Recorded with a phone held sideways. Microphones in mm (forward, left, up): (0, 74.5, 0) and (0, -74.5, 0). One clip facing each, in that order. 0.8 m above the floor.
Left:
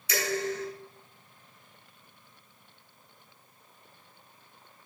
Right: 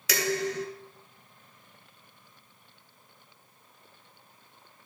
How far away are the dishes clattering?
About 3.5 m.